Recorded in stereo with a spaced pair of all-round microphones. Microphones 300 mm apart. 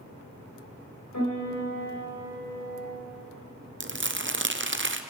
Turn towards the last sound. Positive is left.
turn(degrees=-40)  # may be behind; listen again after turning